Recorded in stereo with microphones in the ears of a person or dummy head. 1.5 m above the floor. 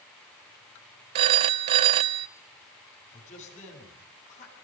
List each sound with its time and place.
1.1 s a phone ringing: 25° right (ahead or behind), 0.5 m
3.1 s a man speaking: 50° left (ahead or behind), 10 m